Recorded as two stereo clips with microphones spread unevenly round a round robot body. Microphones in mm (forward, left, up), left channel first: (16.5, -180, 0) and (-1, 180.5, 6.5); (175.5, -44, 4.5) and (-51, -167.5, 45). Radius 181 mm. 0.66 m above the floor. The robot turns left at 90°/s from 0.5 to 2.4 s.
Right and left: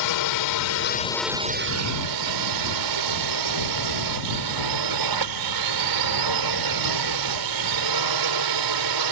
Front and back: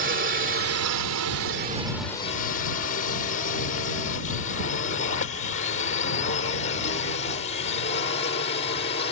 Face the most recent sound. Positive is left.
turn(degrees=90)